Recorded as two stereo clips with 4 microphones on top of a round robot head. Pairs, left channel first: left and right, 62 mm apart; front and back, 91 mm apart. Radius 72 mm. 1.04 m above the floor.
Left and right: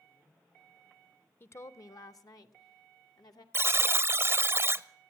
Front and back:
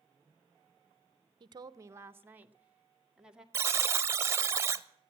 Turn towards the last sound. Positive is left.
turn(degrees=-125)